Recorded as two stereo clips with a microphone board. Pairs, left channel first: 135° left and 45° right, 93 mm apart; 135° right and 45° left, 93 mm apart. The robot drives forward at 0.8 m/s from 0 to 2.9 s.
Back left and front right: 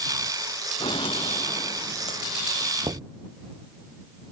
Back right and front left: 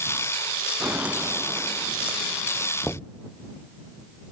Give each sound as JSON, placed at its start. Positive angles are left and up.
{"t": 0.8, "sound": "footsteps", "azimuth_deg": 120}
{"t": 2.8, "sound": "knocking", "azimuth_deg": -55}